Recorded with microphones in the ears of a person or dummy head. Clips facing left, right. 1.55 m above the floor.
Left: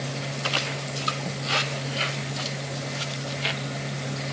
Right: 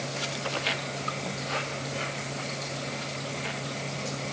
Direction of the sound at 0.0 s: 15° left (ahead or behind).